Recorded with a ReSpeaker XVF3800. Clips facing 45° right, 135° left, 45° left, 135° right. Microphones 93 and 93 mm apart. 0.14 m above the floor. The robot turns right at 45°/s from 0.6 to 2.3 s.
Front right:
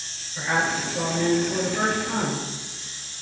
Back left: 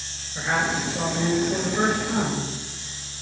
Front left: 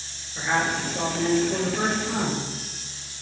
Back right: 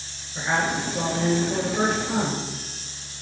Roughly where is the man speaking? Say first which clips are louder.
Even, even; behind.